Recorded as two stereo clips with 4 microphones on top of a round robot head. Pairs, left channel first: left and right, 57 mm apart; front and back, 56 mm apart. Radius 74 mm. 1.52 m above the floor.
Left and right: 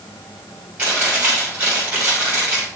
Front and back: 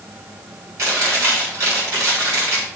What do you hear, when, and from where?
0.8 s chewing: 155° right, 4 m